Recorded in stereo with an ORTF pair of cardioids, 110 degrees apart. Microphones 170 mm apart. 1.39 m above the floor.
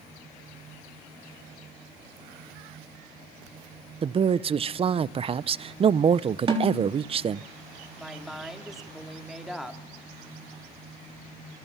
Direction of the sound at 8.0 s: Straight ahead.